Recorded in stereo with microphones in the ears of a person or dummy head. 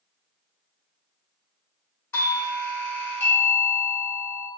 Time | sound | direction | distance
2.1 | a doorbell | 15° left (ahead or behind) | 0.8 m